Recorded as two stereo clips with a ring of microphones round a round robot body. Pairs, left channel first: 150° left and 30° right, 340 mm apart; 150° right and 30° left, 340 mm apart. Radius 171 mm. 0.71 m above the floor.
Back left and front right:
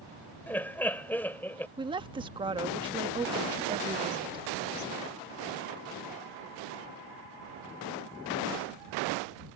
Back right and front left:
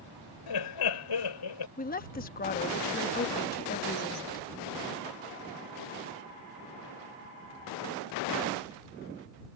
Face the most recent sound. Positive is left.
turn(degrees=-100)